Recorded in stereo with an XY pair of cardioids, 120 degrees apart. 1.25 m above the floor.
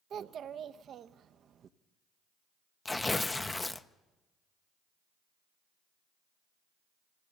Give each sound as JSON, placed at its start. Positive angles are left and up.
{"t": 0.1, "sound": "a child speaking", "azimuth_deg": -50, "distance_m": 0.7}
{"t": 2.9, "sound": "tearing paper", "azimuth_deg": 15, "distance_m": 0.6}